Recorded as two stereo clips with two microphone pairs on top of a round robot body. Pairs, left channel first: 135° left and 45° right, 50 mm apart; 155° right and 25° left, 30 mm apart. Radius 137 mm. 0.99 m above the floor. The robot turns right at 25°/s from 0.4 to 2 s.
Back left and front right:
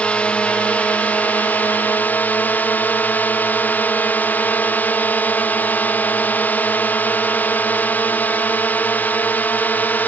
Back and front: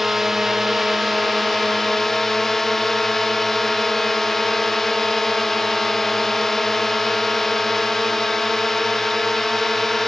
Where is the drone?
80° left; by 10.1 s 120° left.